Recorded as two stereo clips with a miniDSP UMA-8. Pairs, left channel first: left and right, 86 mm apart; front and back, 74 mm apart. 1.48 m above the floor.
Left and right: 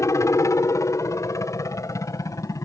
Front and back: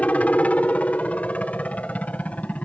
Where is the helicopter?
60° left; by 2.6 s 65° left.